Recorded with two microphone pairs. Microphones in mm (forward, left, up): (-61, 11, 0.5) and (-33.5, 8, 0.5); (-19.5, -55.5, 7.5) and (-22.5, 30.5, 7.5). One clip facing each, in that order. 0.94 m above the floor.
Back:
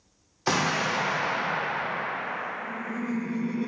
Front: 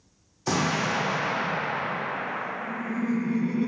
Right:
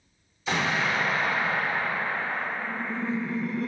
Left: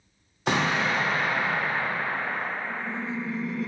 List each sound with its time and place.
0.5 s an explosion: 120° left, 1.4 m
2.6 s laughter: 85° right, 0.9 m